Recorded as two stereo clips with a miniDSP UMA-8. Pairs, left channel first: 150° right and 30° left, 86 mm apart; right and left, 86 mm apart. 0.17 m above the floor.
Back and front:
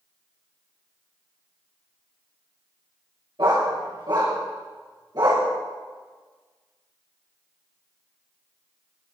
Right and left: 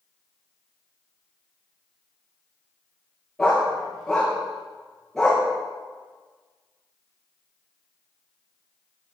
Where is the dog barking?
Straight ahead, 7.5 m; by 5.5 s 5° right, 6.5 m.